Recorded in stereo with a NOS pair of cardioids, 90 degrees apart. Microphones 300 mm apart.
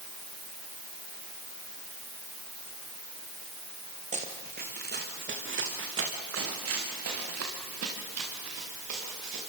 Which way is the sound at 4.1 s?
25° right.